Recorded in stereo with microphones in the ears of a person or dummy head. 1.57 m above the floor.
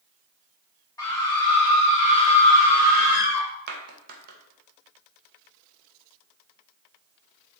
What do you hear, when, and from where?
1.0 s a scream: 25° left (ahead or behind), 2.5 m; by 3.5 s 65° left (ahead or behind), 2.0 m
3.7 s a clap: 55° right (ahead or behind), 1.3 m